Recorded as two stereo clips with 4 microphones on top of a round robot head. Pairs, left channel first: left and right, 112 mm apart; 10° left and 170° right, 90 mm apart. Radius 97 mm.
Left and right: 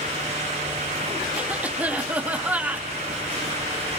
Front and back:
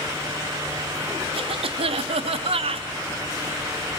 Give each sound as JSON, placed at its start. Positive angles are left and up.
{"t": 1.4, "sound": "a cough", "azimuth_deg": -170, "distance_m": 2.5}